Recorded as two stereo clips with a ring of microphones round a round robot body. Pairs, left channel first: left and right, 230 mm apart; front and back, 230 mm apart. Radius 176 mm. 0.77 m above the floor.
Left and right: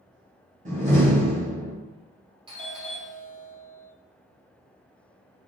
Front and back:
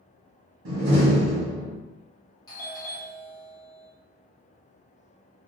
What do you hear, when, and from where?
0.7 s a door slam: 150° right, 1.0 m
2.5 s a doorbell: 50° right, 1.2 m